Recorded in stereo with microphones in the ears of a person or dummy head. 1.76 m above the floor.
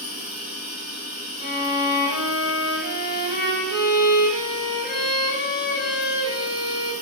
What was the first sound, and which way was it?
An insect, 60° right (ahead or behind).